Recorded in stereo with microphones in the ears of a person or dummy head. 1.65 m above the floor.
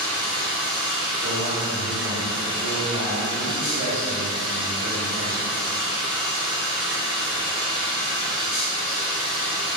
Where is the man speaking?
55° right (ahead or behind), 1.8 m.